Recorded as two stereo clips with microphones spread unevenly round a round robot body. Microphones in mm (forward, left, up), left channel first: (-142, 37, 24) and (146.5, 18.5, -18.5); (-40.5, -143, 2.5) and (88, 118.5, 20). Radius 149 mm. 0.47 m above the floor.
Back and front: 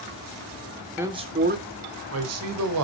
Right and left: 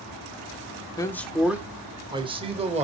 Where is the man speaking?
60° right, 0.8 m; by 2.8 s 5° right, 1.6 m.